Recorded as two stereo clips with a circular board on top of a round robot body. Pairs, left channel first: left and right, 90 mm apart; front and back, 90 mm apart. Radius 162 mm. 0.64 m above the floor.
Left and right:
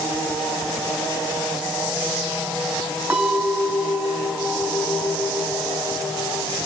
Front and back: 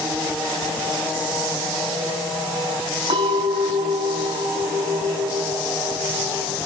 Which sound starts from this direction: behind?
A clink, at 3.1 s.